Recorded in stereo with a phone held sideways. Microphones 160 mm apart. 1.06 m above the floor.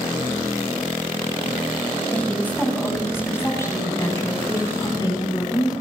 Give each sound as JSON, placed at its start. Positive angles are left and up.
{"t": 2.1, "sound": "a woman speaking", "side_deg": 10, "distance_m": 7.0}